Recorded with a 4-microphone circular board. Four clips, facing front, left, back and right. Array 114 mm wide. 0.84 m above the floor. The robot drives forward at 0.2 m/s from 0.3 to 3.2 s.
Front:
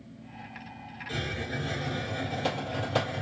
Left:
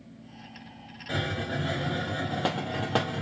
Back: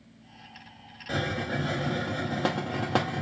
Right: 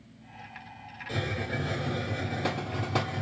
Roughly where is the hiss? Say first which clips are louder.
Left 2 dB, back 5 dB; behind left.